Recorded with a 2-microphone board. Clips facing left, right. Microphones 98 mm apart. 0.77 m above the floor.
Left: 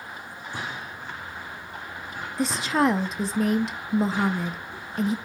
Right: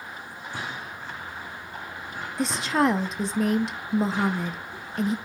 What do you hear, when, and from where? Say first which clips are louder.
2.4 s a woman speaking: even; centre (ahead or behind), 0.5 m